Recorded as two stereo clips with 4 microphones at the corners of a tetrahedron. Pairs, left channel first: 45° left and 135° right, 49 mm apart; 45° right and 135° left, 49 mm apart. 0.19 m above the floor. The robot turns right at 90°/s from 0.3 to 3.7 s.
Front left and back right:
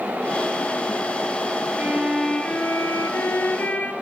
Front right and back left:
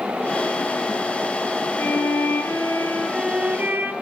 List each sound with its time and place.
1.8 s a violin: 75° right, 0.9 m; by 3.9 s 100° left, 0.9 m